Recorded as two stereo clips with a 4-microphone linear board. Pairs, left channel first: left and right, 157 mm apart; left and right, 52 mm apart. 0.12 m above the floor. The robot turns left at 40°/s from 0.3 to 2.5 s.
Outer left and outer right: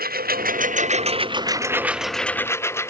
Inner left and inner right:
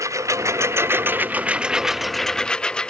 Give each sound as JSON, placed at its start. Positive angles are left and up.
{"t": 0.0, "sound": "a lawn mower", "azimuth_deg": -110}